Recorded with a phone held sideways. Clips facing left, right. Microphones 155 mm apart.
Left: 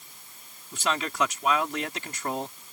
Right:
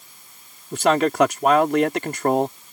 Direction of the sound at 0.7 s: 60° right (ahead or behind).